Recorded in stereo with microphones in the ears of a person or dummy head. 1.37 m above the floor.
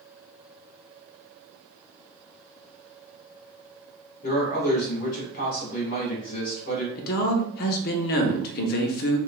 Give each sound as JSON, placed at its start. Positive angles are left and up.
{"t": 4.2, "sound": "a man speaking", "side_deg": 50, "distance_m": 1.6}
{"t": 7.0, "sound": "a man speaking", "side_deg": 50, "distance_m": 0.6}